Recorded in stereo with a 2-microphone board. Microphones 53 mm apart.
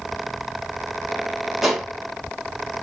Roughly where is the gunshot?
Centre.